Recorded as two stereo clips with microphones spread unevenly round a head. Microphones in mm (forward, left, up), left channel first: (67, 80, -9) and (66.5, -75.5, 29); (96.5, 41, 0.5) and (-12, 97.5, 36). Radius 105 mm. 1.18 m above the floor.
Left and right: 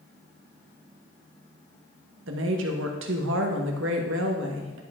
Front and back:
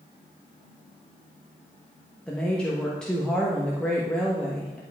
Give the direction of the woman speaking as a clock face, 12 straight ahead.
4 o'clock.